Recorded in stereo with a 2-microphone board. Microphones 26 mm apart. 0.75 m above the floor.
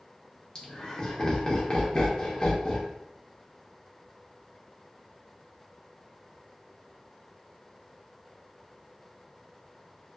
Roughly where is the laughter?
Left.